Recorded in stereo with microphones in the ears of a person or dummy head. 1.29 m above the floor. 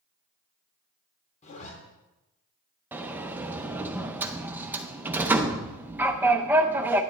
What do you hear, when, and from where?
1.4 s a zipper: 35° left (ahead or behind), 2.0 m
2.9 s a sliding door: 5° right (ahead or behind), 0.6 m